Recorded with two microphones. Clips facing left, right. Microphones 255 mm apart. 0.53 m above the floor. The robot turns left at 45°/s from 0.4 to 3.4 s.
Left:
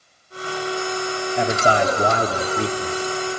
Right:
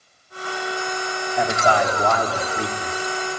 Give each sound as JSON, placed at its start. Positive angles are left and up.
{"t": 1.4, "sound": "a man speaking", "side_deg": 25, "distance_m": 1.0}